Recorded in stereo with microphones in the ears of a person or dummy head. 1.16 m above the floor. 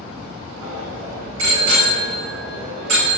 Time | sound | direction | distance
0.6 | a bicycle bell | 80° right | 8.5 m